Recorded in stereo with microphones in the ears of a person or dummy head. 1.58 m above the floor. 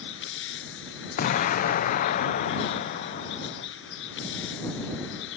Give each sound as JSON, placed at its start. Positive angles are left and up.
{"t": 0.0, "sound": "a vehicle", "side_deg": 65}
{"t": 1.2, "sound": "an explosion", "side_deg": 55}